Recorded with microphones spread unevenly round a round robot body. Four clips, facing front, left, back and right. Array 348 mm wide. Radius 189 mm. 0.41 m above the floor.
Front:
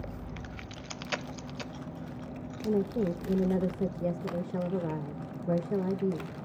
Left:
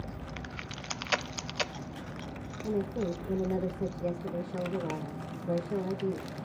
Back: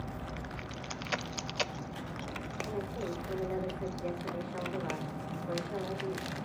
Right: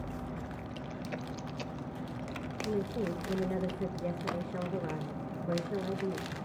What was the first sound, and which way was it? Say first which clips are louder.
A woman speaking: left 2 dB, front 10 dB; 5° left.